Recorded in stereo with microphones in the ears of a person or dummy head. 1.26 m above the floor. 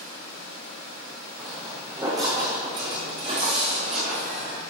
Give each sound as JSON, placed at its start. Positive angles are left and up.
{"t": 1.4, "sound": "footsteps", "side_deg": -10, "distance_m": 3.5}